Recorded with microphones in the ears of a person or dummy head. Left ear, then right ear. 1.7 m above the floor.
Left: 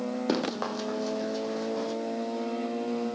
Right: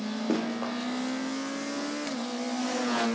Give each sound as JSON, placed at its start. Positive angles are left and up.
{"t": 0.3, "sound": "running footsteps", "side_deg": 60, "distance_m": 4.0}